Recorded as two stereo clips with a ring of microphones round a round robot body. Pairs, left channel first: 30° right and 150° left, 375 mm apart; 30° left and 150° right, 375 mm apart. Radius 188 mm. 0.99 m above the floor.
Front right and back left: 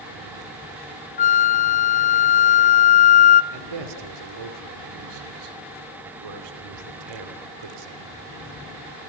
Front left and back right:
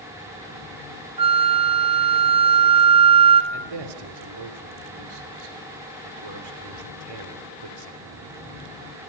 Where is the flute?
85° right, 0.6 m.